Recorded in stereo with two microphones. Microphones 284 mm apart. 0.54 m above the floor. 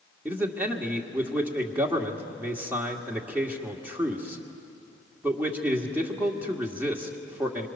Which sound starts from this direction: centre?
A man speaking, at 0.2 s.